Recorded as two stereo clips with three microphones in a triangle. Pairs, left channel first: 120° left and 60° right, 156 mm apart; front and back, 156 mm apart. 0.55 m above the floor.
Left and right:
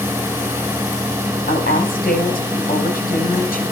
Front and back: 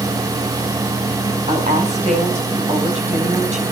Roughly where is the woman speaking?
Behind left.